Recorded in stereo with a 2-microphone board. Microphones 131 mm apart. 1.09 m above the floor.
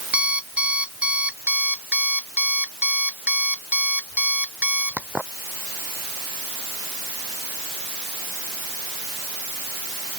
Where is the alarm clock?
10° right (ahead or behind).